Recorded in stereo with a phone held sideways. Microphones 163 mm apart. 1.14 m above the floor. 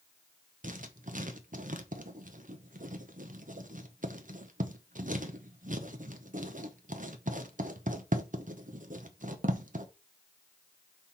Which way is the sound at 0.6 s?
55° right (ahead or behind).